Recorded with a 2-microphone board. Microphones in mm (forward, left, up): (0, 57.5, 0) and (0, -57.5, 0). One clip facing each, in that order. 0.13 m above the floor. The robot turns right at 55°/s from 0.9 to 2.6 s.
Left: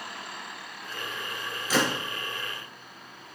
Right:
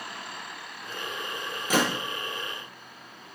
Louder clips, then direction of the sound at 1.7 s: Right 1 dB; 55° right (ahead or behind).